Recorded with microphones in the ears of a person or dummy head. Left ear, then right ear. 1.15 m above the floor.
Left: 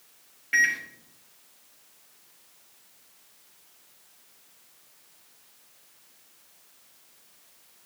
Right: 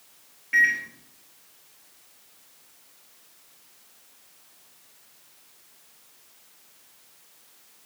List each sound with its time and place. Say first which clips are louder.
0.5 s a microwave: right 2 dB; 30° left (ahead or behind), 1.8 m